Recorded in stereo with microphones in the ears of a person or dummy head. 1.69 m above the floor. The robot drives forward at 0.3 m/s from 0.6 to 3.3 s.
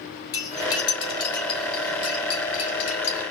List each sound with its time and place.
0.3 s cutlery clinking: 20° left (ahead or behind), 1.9 m; by 3.2 s 30° left (ahead or behind), 1.4 m